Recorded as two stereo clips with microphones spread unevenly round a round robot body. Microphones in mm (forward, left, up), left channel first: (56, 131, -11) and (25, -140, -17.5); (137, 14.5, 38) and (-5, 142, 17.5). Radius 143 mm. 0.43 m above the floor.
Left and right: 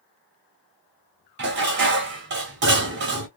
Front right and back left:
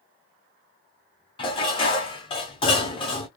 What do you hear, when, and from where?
1.4 s dishes clattering: 105° right, 0.8 m